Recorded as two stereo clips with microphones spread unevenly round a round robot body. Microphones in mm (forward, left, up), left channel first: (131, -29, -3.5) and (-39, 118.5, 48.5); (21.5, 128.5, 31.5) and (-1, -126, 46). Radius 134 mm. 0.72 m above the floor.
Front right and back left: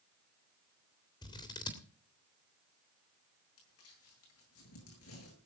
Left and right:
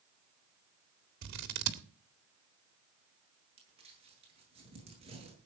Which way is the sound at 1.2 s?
110° right.